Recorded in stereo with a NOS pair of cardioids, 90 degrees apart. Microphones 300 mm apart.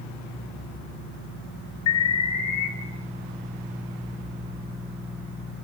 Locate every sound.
1.9 s an alarm: 70° left, 4.5 m